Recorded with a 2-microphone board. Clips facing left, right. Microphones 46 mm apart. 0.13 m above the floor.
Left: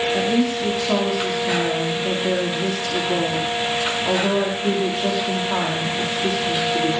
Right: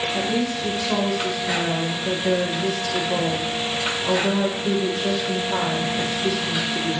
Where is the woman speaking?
55° left (ahead or behind), 4.5 m.